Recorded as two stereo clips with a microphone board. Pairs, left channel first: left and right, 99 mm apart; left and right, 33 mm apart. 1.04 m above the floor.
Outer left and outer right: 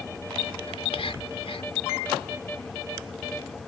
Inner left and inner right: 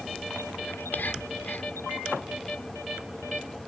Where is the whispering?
80° left.